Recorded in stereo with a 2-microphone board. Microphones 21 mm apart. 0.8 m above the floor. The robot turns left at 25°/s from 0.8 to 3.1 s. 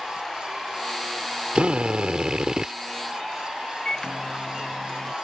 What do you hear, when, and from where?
1.6 s a drill: 65° right (ahead or behind); by 2.7 s 40° right (ahead or behind)
3.9 s a microwave: 35° left (ahead or behind)